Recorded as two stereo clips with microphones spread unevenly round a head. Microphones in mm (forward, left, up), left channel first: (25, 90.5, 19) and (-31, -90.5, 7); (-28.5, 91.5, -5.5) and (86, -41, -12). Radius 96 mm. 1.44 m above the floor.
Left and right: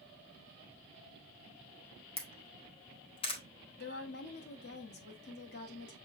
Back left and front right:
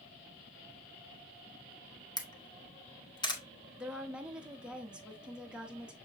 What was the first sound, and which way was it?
A camera shutter, 90° left.